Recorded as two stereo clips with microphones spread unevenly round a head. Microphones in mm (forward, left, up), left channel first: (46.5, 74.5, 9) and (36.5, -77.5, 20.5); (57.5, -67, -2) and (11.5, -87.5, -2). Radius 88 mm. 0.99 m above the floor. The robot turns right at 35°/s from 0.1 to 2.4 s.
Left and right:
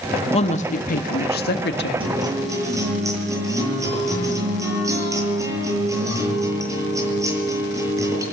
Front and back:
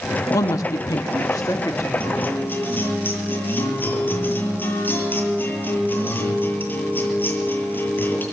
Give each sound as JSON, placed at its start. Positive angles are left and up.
{"t": 0.3, "sound": "a woman speaking", "azimuth_deg": 35, "distance_m": 1.3}
{"t": 2.0, "sound": "a guitar", "azimuth_deg": -40, "distance_m": 8.5}